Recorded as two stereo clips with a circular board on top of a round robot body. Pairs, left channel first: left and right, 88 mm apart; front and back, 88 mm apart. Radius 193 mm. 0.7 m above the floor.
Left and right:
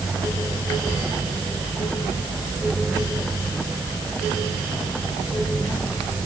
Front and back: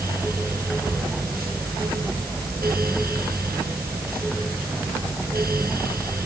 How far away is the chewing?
No chewing in this recording.